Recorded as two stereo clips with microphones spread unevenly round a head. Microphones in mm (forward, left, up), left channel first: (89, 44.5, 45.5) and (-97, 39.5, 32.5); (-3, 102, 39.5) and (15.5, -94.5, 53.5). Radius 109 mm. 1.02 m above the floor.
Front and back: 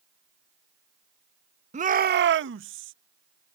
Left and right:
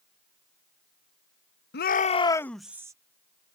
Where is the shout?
130° left; by 2.9 s 160° right.